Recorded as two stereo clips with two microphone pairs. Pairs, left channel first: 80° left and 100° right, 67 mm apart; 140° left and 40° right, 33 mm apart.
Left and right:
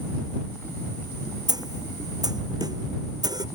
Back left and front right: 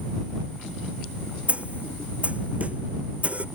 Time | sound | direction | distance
1.5 | a snare drum | 85° right | ?